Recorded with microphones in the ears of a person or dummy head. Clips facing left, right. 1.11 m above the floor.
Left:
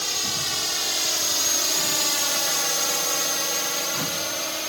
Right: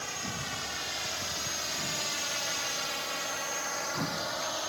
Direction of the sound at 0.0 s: 55° left (ahead or behind).